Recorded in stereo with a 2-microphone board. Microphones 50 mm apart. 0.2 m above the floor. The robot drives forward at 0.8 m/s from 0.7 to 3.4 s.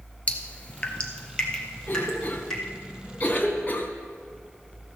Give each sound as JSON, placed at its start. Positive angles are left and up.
{"t": 0.3, "sound": "dripping", "side_deg": 25, "distance_m": 1.2}
{"t": 1.9, "sound": "a cough", "side_deg": 40, "distance_m": 1.7}